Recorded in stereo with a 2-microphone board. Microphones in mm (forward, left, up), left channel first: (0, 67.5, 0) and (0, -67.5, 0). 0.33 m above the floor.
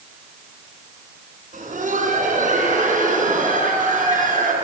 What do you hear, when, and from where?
1.5 s laughter: 70° right (ahead or behind), 4 m